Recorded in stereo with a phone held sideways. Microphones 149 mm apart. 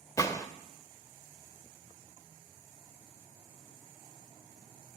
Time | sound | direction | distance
0.2 | a gunshot | 20° left (ahead or behind) | 0.7 m